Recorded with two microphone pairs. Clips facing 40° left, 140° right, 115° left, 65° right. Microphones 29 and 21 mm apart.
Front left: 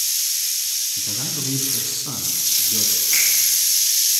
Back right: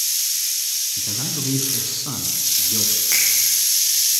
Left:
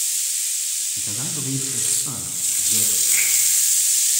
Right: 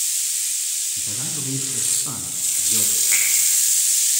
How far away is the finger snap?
About 5.5 m.